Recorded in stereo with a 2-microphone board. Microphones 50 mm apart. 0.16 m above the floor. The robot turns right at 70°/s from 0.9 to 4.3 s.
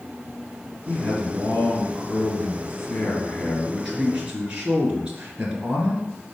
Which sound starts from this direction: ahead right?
A man speaking, at 0.9 s.